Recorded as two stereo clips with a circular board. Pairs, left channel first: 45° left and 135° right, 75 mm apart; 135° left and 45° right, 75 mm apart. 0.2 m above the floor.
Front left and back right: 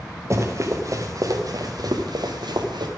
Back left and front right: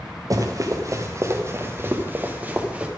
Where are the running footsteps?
85° right, 2.5 m; by 2.9 s 120° right, 2 m.